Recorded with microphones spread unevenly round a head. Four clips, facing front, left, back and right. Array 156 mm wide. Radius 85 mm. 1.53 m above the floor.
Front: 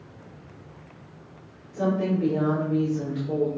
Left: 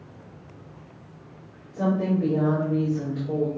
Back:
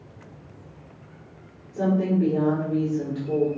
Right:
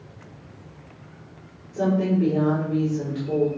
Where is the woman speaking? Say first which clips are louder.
Right 2 dB, back 2 dB; 115° right, 5 m.